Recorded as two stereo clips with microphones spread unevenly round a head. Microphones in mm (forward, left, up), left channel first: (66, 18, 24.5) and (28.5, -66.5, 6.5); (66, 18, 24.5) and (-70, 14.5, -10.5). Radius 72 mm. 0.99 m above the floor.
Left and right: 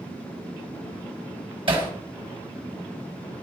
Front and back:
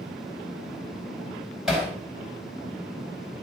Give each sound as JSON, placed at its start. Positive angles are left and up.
{"t": 1.7, "sound": "hammering", "azimuth_deg": -90, "distance_m": 4.0}